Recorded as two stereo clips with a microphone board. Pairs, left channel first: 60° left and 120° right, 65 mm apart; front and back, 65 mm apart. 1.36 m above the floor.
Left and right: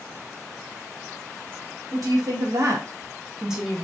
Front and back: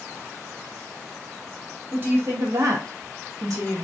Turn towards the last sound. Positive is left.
turn(degrees=145)